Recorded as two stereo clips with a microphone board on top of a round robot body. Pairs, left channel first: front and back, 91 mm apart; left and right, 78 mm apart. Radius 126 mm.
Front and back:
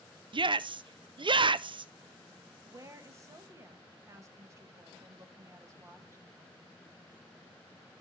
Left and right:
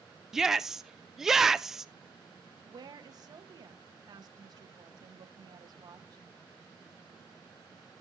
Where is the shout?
175° right, 0.5 m.